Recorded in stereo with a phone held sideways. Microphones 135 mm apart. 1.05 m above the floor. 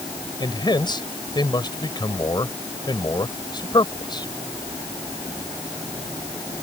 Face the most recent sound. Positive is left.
turn(degrees=35)  # may be behind; listen again after turning